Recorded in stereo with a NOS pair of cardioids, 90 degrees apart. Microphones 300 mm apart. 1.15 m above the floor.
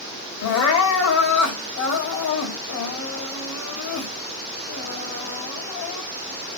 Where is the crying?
70° left, 1.6 m.